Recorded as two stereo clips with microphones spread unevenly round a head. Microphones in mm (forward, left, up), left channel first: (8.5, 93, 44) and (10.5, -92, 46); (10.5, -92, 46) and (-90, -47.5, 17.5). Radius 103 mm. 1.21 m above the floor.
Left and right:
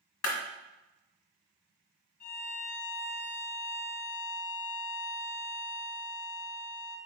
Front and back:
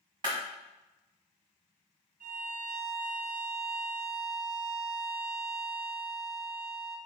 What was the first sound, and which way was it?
A clap, 85° left.